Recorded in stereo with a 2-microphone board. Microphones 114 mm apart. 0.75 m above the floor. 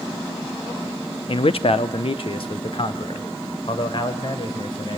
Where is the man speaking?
55° left (ahead or behind), 0.8 m; by 5.0 s 50° left (ahead or behind), 3.5 m.